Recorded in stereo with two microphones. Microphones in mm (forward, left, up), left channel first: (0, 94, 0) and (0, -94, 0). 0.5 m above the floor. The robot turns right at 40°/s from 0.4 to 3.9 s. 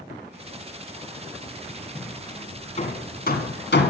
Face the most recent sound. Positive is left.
turn(degrees=85)